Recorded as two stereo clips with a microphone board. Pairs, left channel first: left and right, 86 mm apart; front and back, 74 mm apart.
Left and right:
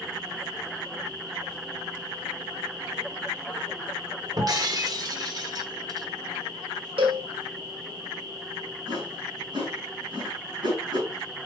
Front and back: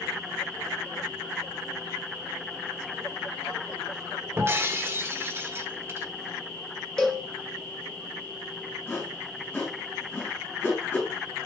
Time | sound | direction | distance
4.4 | breaking glass | 125° right | 1.2 m
7.0 | a cowbell | 80° right | 2.5 m
8.9 | a whoosh | 60° right | 4.5 m